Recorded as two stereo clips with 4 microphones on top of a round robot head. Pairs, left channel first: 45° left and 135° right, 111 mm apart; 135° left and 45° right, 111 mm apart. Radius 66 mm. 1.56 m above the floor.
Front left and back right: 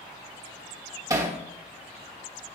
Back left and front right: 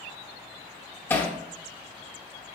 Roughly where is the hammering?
Behind.